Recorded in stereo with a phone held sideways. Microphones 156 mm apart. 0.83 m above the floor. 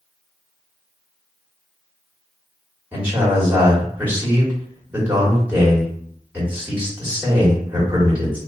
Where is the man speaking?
10° right (ahead or behind), 1.8 m.